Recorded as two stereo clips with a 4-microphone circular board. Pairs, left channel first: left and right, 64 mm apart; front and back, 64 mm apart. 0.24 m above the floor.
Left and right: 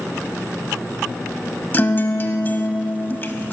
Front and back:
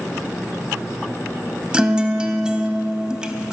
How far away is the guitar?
About 0.7 m.